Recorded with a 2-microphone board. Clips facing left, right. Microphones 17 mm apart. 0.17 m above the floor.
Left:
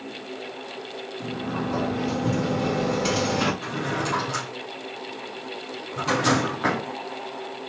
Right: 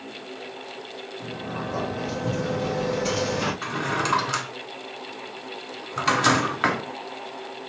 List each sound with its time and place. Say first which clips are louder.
1.2 s a sliding door: left 3 dB; 35° left (ahead or behind), 1.6 m
3.6 s a drawer: right 2 dB; 45° right (ahead or behind), 1.1 m